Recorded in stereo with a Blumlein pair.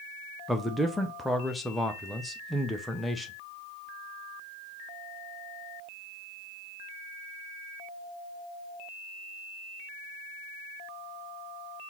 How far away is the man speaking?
About 0.5 m.